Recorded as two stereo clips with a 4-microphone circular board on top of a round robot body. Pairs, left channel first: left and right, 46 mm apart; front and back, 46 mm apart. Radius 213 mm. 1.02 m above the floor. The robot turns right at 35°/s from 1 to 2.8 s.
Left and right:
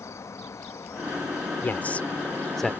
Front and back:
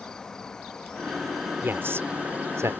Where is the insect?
80° left; by 2.8 s 140° left.